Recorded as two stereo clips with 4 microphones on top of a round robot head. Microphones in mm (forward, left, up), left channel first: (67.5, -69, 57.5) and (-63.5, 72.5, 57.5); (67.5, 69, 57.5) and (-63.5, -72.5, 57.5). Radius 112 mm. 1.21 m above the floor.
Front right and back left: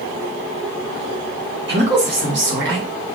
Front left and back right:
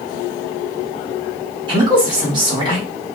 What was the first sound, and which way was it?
A woman speaking, 160° left.